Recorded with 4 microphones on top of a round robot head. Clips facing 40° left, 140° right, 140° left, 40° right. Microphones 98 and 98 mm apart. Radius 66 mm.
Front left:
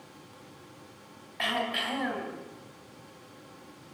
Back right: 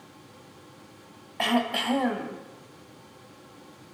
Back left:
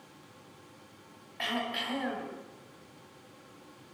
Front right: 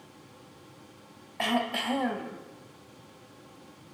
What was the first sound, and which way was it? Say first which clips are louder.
Throat clearing: back right 6 dB, front right 6 dB; 90° right.